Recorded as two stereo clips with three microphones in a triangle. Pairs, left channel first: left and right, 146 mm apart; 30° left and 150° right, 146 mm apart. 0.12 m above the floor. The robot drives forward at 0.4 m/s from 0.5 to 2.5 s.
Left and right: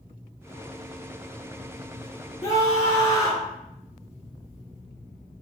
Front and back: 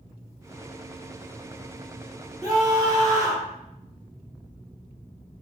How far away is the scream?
About 1.7 m.